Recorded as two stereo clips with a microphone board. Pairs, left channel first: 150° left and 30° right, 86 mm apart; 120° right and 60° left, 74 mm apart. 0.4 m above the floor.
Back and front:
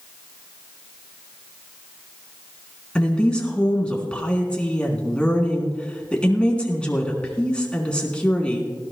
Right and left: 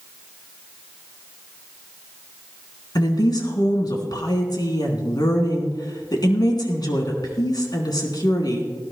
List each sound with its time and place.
3.0 s a woman speaking: 135° right, 3.5 m